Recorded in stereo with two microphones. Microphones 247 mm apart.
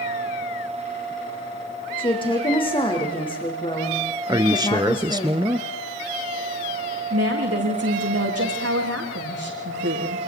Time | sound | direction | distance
2.0 | a woman speaking | 20° left (ahead or behind) | 5 m
4.3 | a man speaking | 15° right (ahead or behind) | 1.1 m
7.1 | a woman speaking | 70° right (ahead or behind) | 7.5 m